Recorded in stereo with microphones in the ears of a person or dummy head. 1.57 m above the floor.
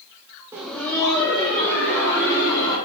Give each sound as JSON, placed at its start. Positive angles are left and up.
{"t": 0.5, "sound": "laughter", "side_deg": -10, "distance_m": 0.6}